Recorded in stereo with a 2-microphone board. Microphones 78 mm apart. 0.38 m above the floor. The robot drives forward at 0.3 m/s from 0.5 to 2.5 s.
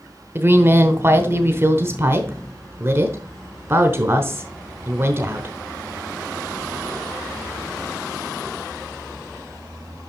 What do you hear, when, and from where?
0.3 s a woman speaking: 30° right (ahead or behind), 1.0 m